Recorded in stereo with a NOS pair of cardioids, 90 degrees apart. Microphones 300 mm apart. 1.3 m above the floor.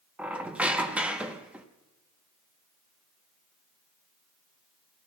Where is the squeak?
5° right, 0.9 m.